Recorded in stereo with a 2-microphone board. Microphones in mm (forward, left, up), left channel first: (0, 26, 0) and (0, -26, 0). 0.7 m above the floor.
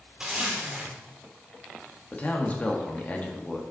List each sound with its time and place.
0.2 s a zipper: 15° right (ahead or behind), 2 m
2.1 s a man speaking: 30° left (ahead or behind), 1.4 m